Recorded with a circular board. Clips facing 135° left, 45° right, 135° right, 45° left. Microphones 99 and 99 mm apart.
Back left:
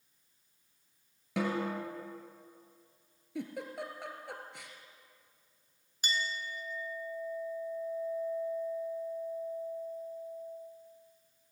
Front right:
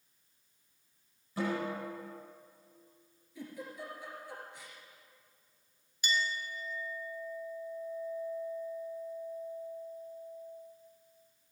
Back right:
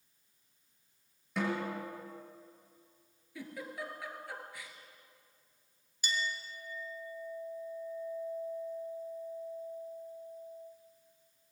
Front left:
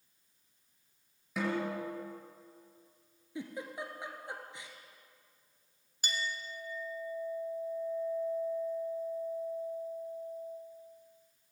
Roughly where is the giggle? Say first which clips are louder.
Back left 5 dB, front left 2 dB; left.